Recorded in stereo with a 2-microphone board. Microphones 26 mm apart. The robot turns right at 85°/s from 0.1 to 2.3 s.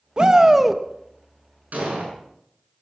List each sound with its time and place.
0.2 s a shout: 55° right, 1.0 m; by 0.8 s straight ahead, 1.0 m
1.7 s an explosion: 80° right, 6.5 m; by 2.1 s 45° right, 6.5 m